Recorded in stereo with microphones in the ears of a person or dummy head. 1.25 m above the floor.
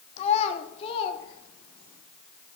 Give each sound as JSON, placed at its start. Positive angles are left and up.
{"t": 0.2, "sound": "a child speaking", "side_deg": 40, "distance_m": 1.1}